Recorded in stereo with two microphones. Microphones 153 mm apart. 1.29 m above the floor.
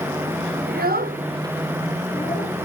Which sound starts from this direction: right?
A child speaking, at 0.7 s.